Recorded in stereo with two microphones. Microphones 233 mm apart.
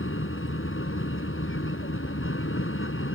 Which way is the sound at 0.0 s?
60° left (ahead or behind).